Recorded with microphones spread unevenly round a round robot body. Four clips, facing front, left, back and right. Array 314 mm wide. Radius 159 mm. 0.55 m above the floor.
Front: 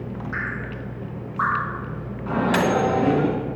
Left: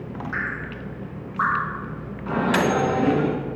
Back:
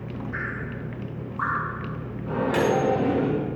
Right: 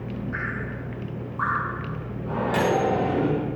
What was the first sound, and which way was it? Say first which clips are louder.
Dripping: left 1 dB, front 3 dB; 90° left.